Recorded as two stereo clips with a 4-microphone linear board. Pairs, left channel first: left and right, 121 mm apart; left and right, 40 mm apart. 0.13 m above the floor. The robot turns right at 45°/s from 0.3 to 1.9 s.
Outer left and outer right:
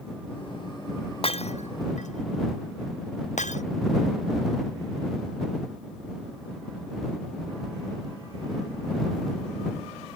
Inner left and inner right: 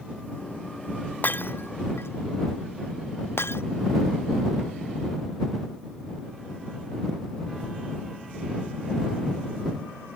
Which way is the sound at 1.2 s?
50° left (ahead or behind).